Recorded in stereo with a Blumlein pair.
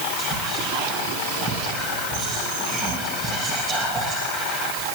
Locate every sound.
0.2 s whispering: 25° right, 1.9 m